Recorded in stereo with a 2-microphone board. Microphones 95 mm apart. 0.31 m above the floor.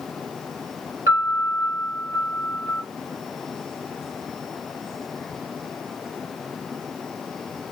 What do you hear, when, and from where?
1.1 s a piano: 35° right (ahead or behind), 1.5 m